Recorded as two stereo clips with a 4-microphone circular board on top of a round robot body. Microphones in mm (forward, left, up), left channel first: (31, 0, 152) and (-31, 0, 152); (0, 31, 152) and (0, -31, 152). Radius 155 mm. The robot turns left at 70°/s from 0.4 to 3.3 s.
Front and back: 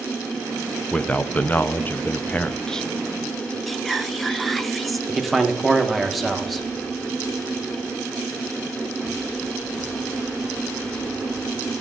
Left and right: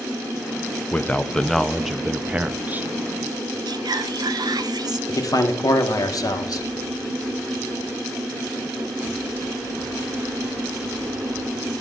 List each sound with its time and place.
0.9 s a man speaking: 60° left, 0.7 m; by 2.9 s 80° right, 0.7 m
3.7 s whispering: 90° right, 0.8 m
5.1 s a man speaking: 90° left, 1.3 m